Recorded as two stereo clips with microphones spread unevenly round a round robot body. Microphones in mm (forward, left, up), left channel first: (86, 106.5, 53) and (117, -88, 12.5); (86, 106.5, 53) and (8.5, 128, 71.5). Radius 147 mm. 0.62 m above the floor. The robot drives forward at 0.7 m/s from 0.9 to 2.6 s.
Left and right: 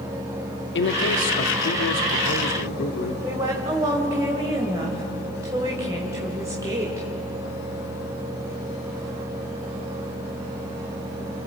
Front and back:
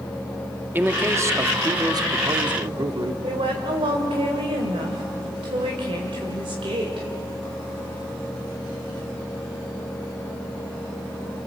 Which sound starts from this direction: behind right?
A woman speaking, at 3.2 s.